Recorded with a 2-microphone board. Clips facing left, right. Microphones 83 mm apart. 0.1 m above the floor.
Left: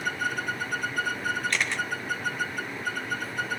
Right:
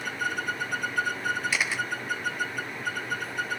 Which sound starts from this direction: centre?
A camera shutter, at 1.5 s.